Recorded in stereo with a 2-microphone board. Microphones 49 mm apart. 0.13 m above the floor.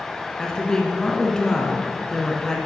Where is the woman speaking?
15° left (ahead or behind), 1.6 m.